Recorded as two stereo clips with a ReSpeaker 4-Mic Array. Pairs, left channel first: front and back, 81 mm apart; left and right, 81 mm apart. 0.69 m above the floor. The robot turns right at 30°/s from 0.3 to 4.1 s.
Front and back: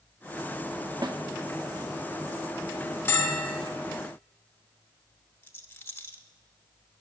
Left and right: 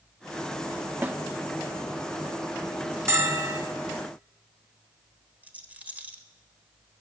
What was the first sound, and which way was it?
A snare drum, 155° right.